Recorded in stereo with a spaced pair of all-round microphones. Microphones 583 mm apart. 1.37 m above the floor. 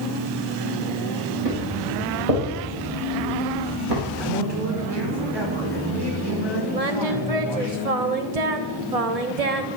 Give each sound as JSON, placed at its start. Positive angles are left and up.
{"t": 1.4, "sound": "footsteps", "side_deg": -80, "distance_m": 8.5}
{"t": 4.2, "sound": "a man speaking", "side_deg": -45, "distance_m": 5.5}
{"t": 6.7, "sound": "singing", "side_deg": -85, "distance_m": 1.1}